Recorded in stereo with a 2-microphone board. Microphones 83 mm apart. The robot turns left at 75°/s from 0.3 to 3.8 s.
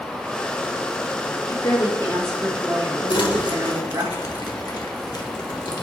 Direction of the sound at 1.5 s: 70° left.